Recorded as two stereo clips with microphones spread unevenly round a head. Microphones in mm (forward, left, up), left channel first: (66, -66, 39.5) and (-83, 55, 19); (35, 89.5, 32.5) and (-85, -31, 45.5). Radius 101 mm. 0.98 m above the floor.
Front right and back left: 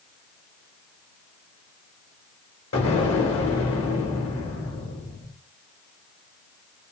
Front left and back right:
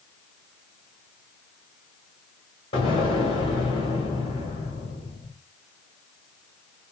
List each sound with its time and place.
2.7 s an explosion: 20° right, 1.4 m